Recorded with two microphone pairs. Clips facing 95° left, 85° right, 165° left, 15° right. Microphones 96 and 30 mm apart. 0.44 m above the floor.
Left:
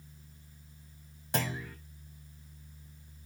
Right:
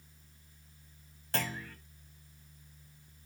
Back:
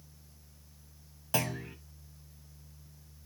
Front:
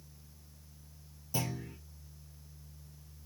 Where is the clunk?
170° left, 1.7 m.